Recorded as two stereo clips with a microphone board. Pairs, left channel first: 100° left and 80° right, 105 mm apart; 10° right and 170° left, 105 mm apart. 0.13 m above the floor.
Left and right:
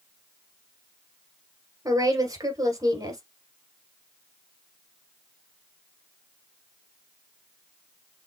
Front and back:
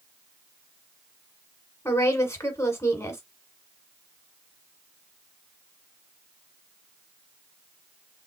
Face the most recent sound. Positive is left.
turn(degrees=-55)